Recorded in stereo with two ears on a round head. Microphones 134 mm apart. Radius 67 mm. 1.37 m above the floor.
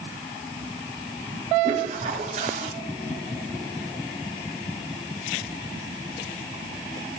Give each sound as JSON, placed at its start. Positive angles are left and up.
{"t": 1.6, "sound": "a toilet flushing", "side_deg": -50, "distance_m": 3.0}